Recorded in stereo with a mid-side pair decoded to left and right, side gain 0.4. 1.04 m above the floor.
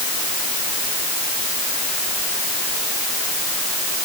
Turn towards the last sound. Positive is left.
No sound to turn to.